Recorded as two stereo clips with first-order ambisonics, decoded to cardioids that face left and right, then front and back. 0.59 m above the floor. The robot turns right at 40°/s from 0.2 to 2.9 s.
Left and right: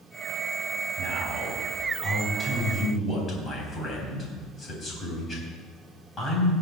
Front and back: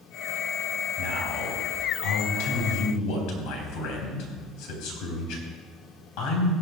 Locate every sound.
1.0 s a man speaking: 55° right, 3.5 m; by 6.5 s 25° left, 3.5 m